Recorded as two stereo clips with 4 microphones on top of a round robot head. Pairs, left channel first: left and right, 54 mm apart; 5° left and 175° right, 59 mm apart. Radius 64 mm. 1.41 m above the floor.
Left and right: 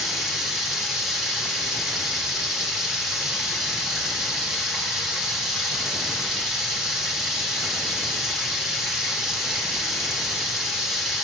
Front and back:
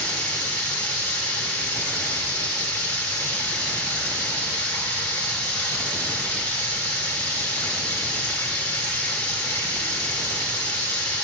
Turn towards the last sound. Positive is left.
turn(degrees=-10)